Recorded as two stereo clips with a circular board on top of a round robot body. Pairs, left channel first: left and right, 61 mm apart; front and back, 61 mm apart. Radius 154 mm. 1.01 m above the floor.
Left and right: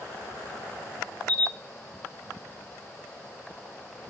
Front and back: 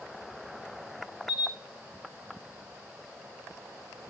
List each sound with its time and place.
1.3 s a camera shutter: 80° right, 1.1 m